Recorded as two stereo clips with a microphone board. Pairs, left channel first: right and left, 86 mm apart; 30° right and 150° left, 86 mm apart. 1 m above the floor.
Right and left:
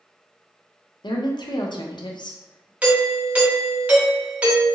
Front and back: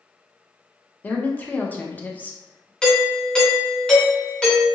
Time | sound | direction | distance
1.0 | a woman speaking | 100° right | 0.5 m
2.8 | a doorbell | 40° left | 0.9 m